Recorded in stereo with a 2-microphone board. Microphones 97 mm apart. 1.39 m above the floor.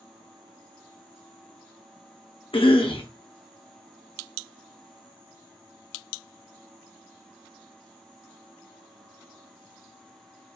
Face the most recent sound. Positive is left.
turn(degrees=80)